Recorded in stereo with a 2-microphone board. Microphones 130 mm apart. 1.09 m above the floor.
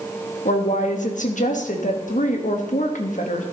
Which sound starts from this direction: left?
A woman speaking, at 0.5 s.